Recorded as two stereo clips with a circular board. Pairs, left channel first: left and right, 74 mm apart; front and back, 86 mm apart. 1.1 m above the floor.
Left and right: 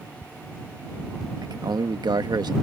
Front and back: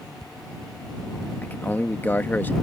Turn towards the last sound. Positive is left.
turn(degrees=-70)